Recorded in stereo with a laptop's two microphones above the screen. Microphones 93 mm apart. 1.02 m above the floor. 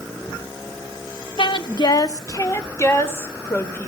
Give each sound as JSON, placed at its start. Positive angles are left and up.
{"t": 1.4, "sound": "a woman speaking", "side_deg": 65, "distance_m": 1.2}